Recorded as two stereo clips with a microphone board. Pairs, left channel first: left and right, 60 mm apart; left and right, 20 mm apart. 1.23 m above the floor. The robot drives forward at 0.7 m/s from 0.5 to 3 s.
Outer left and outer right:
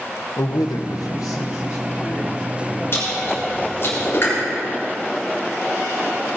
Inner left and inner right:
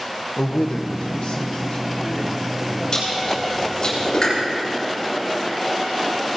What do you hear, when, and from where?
0.4 s a man speaking: 80° left, 1.1 m; by 2.8 s 35° left (ahead or behind), 1.8 m
2.9 s chewing: 40° left (ahead or behind), 6.5 m